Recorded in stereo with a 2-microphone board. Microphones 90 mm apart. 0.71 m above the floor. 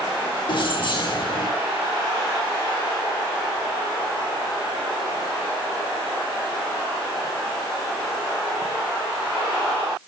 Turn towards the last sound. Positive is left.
turn(degrees=60)  # may be behind; listen again after turning